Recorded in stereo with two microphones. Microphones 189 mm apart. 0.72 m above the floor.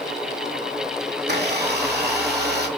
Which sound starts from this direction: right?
A blender, at 1.2 s.